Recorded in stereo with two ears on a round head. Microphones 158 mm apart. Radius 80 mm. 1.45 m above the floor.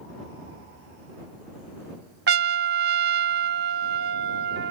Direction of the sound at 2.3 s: 60° right (ahead or behind).